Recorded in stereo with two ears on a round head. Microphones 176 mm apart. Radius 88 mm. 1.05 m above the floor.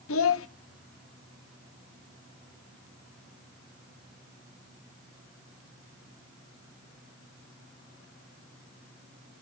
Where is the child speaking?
75° left (ahead or behind), 0.9 m.